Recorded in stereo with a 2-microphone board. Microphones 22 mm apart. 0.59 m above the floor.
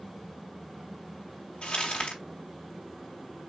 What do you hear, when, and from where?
1.6 s crumpling: 65° left (ahead or behind), 2.5 m